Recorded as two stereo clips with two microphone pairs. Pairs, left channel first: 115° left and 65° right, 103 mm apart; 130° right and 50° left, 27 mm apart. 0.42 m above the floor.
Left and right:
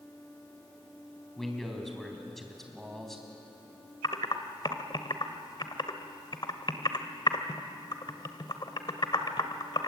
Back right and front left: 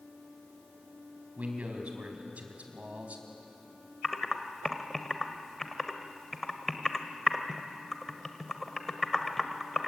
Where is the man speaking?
30° left, 4 m.